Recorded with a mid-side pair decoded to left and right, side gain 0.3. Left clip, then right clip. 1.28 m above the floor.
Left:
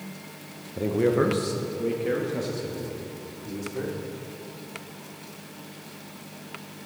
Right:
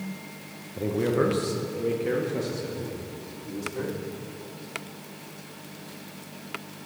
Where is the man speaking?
35° left, 0.5 m; by 4.0 s 5° left, 3 m.